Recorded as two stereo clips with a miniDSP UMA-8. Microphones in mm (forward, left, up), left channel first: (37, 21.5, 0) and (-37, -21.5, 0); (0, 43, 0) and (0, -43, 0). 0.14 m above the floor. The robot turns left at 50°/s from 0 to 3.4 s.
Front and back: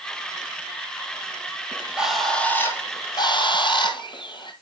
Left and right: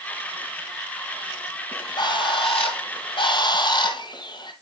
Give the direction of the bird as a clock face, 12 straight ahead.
7 o'clock.